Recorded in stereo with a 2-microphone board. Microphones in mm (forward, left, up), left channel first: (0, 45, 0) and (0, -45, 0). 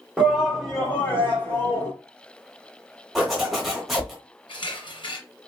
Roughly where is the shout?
Centre.